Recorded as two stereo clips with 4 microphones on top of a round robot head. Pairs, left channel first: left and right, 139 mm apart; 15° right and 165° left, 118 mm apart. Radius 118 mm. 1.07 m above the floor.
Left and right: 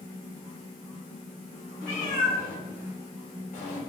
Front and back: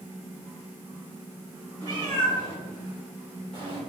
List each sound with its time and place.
1.8 s a cat meowing: 115° left, 3 m; by 3.8 s 125° left, 1.7 m